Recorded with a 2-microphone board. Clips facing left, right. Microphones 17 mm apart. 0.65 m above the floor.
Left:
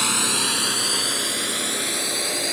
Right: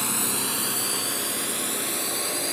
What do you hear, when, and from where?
0.0 s a drone: 35° left (ahead or behind); by 2.5 s 25° left (ahead or behind)